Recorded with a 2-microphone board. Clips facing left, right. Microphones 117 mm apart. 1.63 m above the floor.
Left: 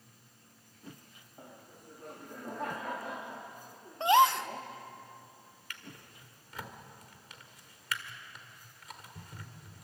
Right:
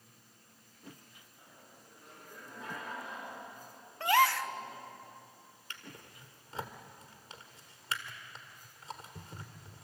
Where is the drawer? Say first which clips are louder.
Even; 30° right (ahead or behind), 2.0 m.